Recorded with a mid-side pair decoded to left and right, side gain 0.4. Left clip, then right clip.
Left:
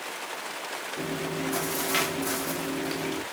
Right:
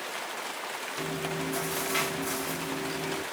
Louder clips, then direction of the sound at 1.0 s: Left 1 dB; 65° left.